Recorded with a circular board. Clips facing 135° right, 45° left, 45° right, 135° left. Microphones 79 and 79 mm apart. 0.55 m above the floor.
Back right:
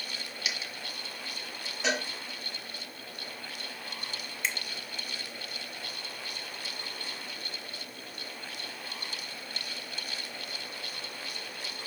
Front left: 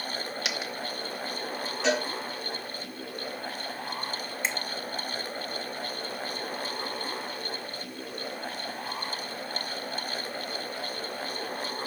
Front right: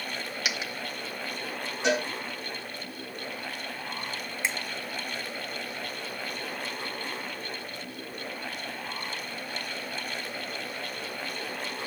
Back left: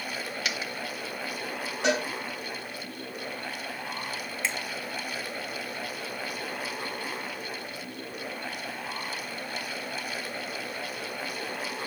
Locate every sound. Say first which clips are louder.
0.5 s a dropped coin: front left 1 dB, front right 1 dB; 35° left, 1.1 m
1.8 s a cowbell: front left 4 dB, even; 140° left, 3.5 m
4.4 s a finger snap: front left 1 dB, front right 1 dB; 15° left, 0.9 m